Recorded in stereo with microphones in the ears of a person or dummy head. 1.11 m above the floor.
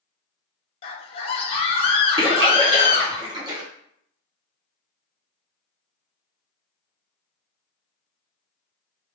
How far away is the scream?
About 0.7 m.